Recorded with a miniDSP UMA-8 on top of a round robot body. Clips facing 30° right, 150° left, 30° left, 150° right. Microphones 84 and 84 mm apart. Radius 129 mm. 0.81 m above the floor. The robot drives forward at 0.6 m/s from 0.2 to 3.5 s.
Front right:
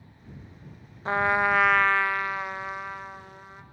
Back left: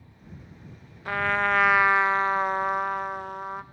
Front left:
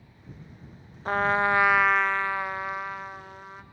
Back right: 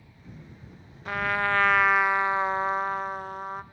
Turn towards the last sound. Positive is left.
turn(degrees=175)